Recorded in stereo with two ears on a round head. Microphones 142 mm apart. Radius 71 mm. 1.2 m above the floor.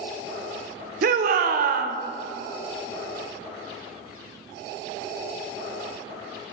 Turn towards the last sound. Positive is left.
turn(degrees=-55)  # may be behind; listen again after turning